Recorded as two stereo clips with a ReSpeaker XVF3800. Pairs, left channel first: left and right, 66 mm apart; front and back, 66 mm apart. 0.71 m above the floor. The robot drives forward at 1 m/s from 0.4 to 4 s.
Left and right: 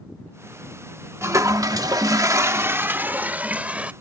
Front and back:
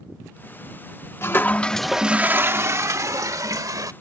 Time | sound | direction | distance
1.2 | a toilet flushing | 50° right | ?